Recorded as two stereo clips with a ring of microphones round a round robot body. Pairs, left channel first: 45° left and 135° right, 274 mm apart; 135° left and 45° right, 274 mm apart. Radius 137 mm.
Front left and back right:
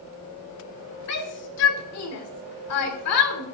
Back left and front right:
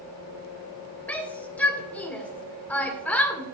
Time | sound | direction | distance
1.1 | a shout | 50° left | 2 m